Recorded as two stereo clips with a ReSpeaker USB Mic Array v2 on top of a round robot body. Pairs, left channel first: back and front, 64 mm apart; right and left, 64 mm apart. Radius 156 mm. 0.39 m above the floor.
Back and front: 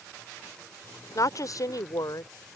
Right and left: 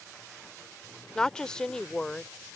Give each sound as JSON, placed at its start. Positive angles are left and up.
{"t": 1.1, "sound": "a woman speaking", "azimuth_deg": -165}